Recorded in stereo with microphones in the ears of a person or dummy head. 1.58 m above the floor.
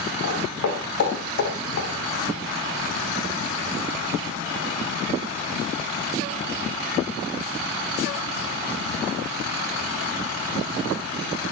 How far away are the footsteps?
About 7.5 m.